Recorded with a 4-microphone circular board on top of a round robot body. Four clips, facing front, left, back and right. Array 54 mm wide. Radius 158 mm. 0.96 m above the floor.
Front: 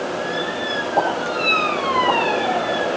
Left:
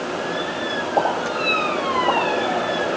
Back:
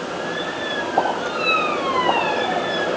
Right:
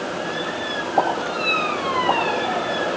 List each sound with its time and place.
1.0 s a pop: 55° left, 5 m